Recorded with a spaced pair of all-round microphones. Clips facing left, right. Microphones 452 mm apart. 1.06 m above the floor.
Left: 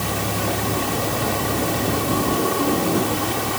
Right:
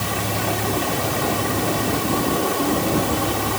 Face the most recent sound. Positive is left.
No sound to turn to.